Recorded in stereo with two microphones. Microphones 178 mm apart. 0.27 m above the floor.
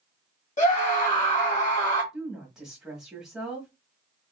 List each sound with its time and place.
0.6 s a scream: 40° left (ahead or behind), 1.2 m
2.1 s a woman speaking: 5° right (ahead or behind), 1.2 m